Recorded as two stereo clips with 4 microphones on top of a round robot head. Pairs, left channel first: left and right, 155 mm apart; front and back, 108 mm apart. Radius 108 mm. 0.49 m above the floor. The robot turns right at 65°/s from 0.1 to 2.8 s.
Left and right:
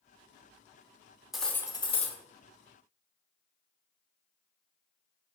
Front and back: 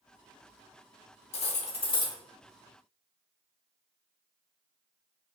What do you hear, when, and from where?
1.3 s cutlery clinking: 5° right, 0.8 m; by 2.2 s 50° left, 0.8 m